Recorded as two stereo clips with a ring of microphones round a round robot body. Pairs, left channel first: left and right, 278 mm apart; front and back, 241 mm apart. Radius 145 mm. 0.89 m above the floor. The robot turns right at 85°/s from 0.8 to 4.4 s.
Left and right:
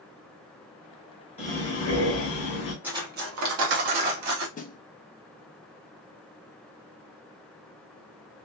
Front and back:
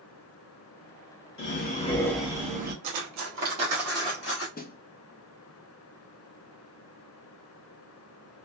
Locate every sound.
1.4 s breathing: 25° left, 1.3 m; by 2.7 s 140° left, 1.3 m
2.8 s cutlery clinking: 175° right, 0.8 m; by 4.5 s 40° right, 0.8 m
4.6 s a snare drum: 40° left, 0.6 m